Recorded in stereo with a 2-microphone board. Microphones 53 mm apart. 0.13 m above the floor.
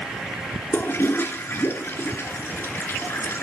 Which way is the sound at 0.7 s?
45° left (ahead or behind).